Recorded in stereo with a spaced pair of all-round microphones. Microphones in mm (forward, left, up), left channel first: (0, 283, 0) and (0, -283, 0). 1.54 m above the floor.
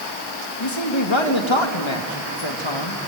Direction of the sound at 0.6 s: 55° left (ahead or behind).